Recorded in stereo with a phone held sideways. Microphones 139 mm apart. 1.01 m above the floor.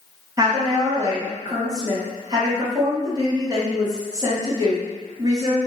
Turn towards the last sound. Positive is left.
turn(degrees=-25)  # may be behind; listen again after turning